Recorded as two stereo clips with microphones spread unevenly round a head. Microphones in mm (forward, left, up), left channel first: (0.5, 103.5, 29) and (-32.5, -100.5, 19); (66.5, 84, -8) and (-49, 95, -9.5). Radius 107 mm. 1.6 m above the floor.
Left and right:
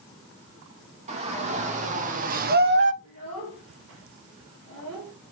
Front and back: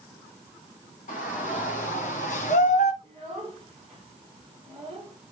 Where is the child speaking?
105° right, 4 m.